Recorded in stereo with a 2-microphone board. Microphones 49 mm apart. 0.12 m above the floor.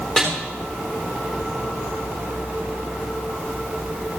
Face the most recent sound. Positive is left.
turn(degrees=15)  # may be behind; listen again after turning